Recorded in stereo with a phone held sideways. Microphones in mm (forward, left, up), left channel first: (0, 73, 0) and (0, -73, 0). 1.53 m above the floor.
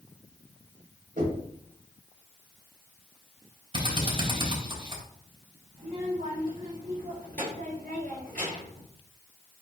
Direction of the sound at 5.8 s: 80° right.